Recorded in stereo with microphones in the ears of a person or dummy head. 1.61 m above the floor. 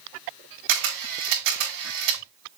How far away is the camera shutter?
About 3 m.